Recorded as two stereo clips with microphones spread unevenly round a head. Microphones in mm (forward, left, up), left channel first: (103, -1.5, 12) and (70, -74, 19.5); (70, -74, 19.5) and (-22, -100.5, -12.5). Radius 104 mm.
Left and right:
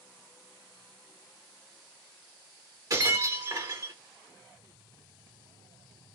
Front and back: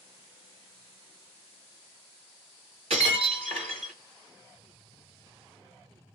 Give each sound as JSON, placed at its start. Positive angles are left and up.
{"t": 2.9, "sound": "breaking glass", "azimuth_deg": -155, "distance_m": 2.0}